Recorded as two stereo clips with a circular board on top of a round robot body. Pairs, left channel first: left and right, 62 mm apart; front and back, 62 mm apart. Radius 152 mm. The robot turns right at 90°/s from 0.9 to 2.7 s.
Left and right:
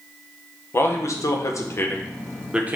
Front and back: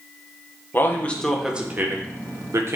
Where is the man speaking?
50° left, 1.5 m; by 2.8 s 150° right, 1.5 m.